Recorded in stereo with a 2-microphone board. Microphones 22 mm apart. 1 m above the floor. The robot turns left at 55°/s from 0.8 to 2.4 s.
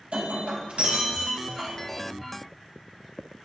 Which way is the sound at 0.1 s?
110° right.